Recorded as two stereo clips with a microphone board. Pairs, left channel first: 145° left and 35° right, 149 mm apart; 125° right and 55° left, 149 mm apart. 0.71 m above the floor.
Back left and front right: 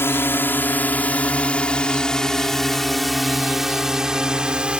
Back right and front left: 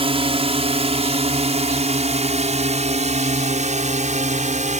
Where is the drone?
80° left; by 4.8 s 45° left.